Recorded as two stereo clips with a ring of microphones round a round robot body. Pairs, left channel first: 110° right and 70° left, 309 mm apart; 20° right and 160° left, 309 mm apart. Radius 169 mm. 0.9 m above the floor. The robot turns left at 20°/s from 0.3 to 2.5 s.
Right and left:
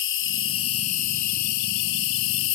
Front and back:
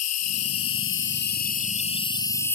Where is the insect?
60° right; by 2.5 s 105° right.